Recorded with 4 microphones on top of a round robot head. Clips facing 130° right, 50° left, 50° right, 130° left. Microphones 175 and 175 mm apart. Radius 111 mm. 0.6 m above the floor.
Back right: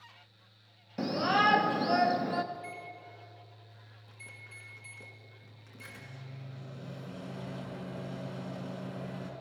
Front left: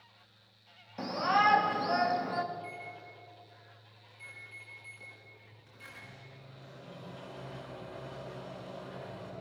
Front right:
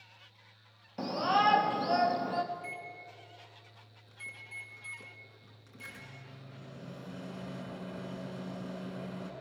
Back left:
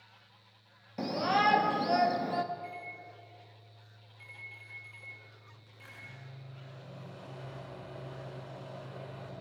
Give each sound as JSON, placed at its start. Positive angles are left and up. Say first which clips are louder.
{"t": 1.0, "sound": "a shout", "louder": "back right 1 dB, even", "azimuth_deg": -155, "distance_m": 1.0}
{"t": 2.5, "sound": "a microwave", "louder": "even, back left 1 dB", "azimuth_deg": -90, "distance_m": 5.5}